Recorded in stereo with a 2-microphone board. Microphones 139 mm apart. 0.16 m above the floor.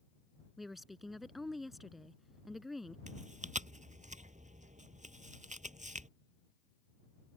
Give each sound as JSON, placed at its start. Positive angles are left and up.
{"t": 0.6, "sound": "a woman speaking", "side_deg": 0}
{"t": 3.1, "sound": "chewing", "side_deg": -70}